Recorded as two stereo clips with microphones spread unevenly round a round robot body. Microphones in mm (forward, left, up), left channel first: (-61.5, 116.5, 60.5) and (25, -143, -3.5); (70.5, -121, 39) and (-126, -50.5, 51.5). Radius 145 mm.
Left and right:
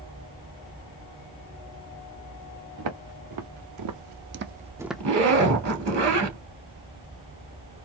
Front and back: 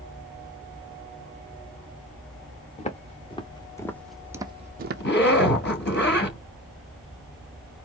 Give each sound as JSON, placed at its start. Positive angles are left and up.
{"t": 2.8, "sound": "footsteps", "azimuth_deg": -80, "distance_m": 1.6}
{"t": 5.0, "sound": "a zipper", "azimuth_deg": -50, "distance_m": 3.0}